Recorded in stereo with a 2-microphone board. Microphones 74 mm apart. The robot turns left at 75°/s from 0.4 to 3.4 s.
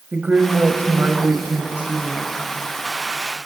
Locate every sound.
0.1 s a woman speaking: 45° right, 1.1 m; by 2.3 s 170° left, 1.1 m